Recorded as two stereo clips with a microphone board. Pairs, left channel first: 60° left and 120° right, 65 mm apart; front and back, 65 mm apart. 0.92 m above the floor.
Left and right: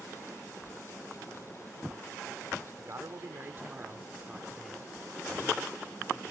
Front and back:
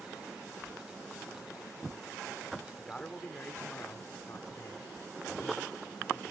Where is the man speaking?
80° right; by 6.2 s 5° right.